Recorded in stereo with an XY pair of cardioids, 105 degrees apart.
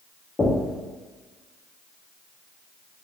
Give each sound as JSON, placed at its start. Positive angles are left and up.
{"t": 0.4, "sound": "knocking", "azimuth_deg": 25, "distance_m": 0.7}